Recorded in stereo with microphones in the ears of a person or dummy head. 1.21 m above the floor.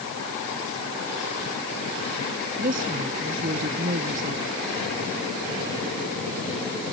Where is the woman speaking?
45° right (ahead or behind).